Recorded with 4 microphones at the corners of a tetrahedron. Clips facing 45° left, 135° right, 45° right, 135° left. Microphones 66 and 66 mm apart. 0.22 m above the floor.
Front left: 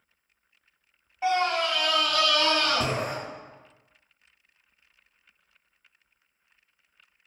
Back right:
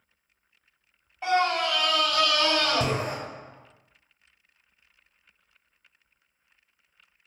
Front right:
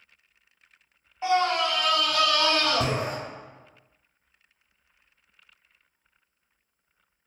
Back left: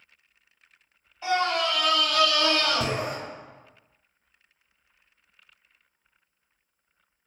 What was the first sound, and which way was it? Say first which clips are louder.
A scream: back right 1 dB, front right 2 dB; 30° right.